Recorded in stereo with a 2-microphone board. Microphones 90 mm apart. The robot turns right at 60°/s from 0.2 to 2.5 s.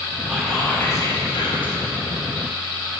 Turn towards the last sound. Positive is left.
turn(degrees=125)